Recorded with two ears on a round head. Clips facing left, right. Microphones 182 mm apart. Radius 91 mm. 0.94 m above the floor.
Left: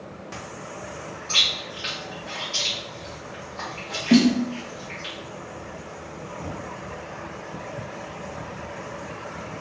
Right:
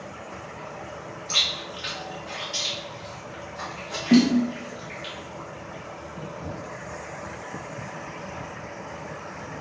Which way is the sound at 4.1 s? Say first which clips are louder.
Even; 15° left (ahead or behind).